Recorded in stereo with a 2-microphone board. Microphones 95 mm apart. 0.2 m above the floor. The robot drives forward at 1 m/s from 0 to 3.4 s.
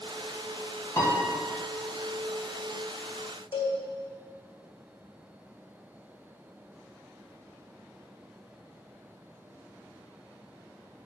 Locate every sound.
1.0 s a piano: 30° left (ahead or behind), 2.5 m
3.5 s a cowbell: 85° left, 3 m